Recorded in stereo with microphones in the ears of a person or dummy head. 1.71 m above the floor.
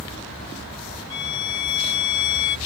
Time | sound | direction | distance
1.1 | a violin | 70° left (ahead or behind) | ?